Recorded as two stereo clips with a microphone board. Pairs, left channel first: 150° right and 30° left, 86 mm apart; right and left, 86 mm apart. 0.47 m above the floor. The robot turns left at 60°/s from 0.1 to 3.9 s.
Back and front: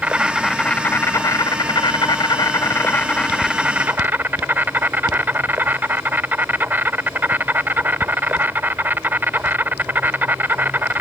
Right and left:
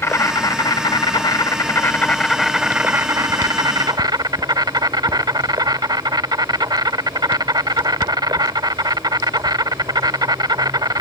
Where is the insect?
40° right; by 11.0 s 90° left.